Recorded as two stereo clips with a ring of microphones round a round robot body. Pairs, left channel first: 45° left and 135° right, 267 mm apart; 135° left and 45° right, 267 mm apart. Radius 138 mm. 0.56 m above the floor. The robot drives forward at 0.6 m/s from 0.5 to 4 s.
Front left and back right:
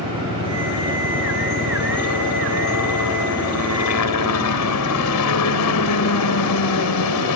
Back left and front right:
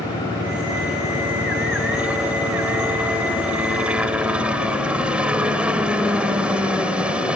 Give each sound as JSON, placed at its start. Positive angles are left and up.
{"t": 0.0, "sound": "a helicopter", "azimuth_deg": 40}